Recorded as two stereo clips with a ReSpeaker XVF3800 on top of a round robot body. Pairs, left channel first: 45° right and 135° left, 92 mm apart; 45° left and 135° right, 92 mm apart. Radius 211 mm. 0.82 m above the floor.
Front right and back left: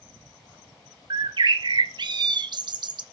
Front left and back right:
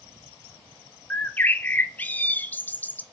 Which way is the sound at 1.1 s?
115° left.